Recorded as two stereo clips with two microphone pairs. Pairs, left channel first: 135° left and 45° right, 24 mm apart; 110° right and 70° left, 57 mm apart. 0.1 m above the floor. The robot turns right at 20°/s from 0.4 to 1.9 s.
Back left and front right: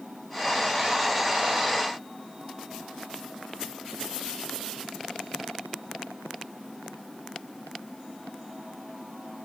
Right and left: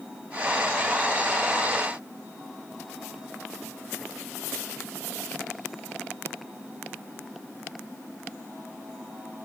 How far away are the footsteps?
I don't hear footsteps.